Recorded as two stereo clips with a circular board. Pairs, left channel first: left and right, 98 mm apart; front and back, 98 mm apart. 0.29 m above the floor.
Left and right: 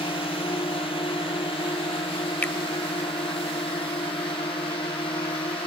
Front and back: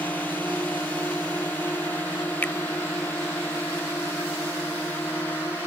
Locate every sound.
0.0 s a drone: 70° left
2.4 s a finger snap: 40° left